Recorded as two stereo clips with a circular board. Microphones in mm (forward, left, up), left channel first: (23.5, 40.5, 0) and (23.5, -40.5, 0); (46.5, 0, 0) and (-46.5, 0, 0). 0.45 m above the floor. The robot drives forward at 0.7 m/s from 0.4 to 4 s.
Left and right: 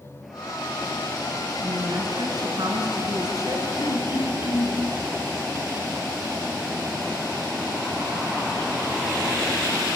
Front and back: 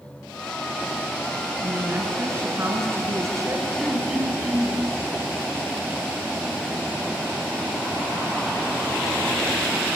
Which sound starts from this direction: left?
Throat clearing, at 3.8 s.